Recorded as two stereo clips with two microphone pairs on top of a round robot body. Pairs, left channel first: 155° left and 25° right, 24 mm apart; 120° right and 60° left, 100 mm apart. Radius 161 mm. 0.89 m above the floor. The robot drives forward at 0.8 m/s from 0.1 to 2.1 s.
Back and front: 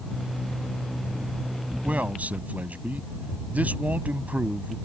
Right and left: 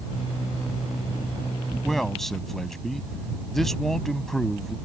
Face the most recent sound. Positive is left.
turn(degrees=-35)